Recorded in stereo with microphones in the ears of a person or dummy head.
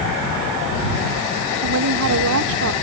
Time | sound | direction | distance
1.6 | a woman speaking | 80° right | ?